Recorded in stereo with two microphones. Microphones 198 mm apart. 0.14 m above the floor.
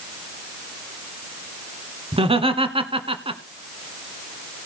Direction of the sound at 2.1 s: 30° right (ahead or behind).